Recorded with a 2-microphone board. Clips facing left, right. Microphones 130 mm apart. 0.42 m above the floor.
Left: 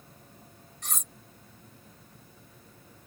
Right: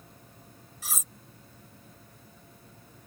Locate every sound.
0.8 s cutlery clinking: 5° right (ahead or behind)